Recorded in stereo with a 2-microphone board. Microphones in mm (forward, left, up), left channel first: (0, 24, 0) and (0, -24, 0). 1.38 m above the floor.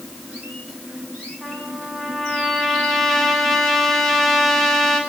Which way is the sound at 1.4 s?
10° left (ahead or behind).